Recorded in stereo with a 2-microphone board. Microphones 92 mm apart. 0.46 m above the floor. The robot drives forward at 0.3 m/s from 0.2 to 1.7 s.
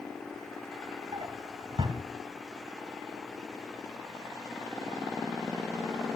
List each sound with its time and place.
1.1 s a drawer: 65° right (ahead or behind), 1.2 m; by 2.0 s 70° right (ahead or behind), 1.1 m